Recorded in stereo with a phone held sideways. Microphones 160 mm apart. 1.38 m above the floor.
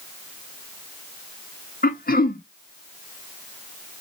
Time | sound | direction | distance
1.8 | throat clearing | 70° left (ahead or behind) | 0.7 m